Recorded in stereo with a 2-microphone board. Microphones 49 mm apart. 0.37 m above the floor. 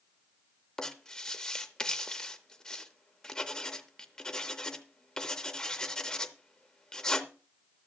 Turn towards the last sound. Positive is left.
turn(degrees=15)  # may be behind; listen again after turning